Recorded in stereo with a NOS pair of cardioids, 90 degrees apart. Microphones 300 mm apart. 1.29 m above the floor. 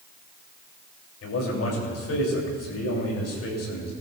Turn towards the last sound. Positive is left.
turn(degrees=55)